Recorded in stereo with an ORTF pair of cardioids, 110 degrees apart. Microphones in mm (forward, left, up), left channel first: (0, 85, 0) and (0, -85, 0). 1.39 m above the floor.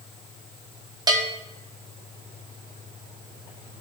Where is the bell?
20° right, 1.5 m.